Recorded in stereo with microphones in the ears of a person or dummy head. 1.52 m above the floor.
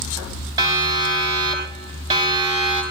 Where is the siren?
20° right (ahead or behind), 7.5 m; by 2.8 s 30° right (ahead or behind), 8 m.